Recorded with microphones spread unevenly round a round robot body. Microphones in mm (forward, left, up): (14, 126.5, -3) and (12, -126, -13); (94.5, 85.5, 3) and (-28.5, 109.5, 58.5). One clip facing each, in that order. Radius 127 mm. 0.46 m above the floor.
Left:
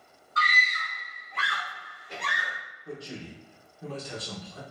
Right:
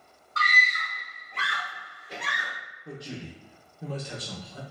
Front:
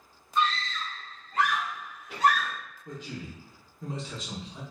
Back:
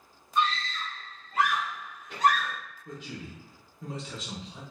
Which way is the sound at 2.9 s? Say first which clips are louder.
Even, front 2 dB; 45° right.